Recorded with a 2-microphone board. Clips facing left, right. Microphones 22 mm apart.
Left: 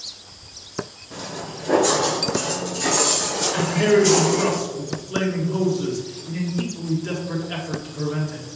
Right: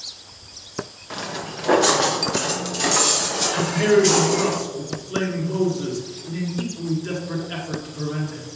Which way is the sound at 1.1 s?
80° right.